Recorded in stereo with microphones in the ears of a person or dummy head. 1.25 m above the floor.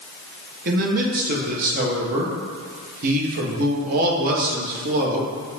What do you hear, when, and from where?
0.7 s a man speaking: 45° right (ahead or behind), 0.6 m